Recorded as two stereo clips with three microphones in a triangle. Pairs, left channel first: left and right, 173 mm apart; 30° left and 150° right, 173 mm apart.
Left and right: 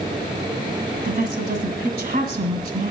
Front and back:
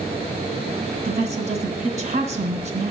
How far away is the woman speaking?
About 1.8 m.